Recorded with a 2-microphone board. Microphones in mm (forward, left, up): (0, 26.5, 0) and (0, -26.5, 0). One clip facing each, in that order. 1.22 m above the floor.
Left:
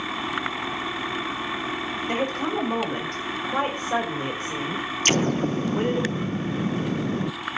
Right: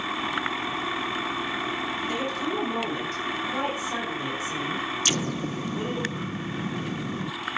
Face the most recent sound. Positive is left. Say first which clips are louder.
# left 6 dB
turn(degrees=45)  # may be behind; listen again after turning